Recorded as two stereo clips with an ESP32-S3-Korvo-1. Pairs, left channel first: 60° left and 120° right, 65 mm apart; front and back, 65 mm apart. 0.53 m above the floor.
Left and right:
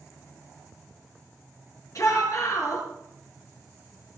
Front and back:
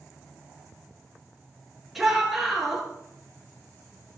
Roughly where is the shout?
Left.